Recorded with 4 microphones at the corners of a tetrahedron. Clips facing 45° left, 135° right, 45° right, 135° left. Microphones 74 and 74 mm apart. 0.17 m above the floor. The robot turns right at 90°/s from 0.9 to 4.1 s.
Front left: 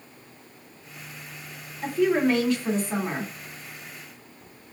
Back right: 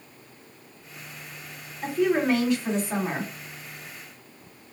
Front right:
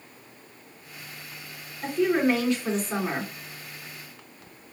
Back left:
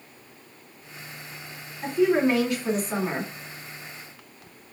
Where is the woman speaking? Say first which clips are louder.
Front left 1 dB, back left 2 dB; 120° left, 1.6 m; by 3.3 s 105° right, 1.6 m.